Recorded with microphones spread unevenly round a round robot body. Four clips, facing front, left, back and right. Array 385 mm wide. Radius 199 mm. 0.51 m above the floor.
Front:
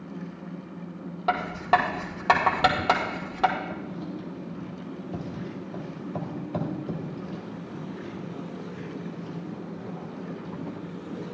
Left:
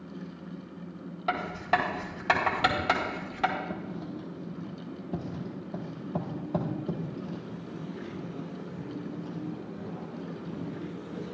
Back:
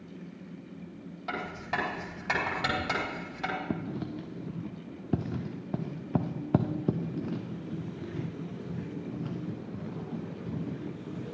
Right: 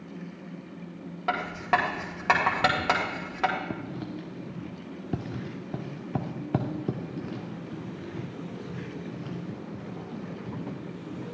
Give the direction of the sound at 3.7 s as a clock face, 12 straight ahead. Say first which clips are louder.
Right 2 dB, even; 5 o'clock.